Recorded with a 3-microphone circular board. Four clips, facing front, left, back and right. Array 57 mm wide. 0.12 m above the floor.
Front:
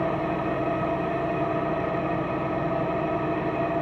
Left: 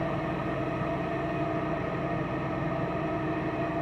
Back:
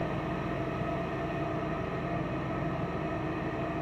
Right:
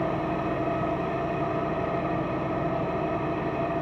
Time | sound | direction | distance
0.0 | an engine running | 30° right | 1.3 m